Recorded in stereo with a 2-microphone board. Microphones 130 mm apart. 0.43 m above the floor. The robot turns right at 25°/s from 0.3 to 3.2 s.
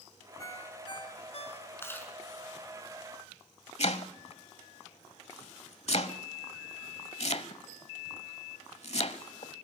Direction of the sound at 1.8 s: 20° left (ahead or behind).